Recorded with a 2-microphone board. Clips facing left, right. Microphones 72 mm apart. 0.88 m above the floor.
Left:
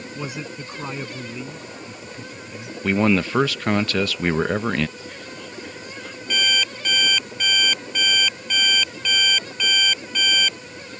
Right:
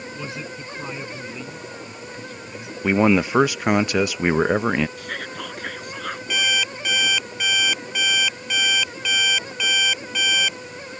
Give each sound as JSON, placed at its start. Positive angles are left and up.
{"t": 0.1, "sound": "a man speaking", "side_deg": 15}
{"t": 2.8, "sound": "a man speaking", "side_deg": -15}
{"t": 5.0, "sound": "whispering", "side_deg": -70}
{"t": 6.3, "sound": "an alarm clock", "side_deg": -5}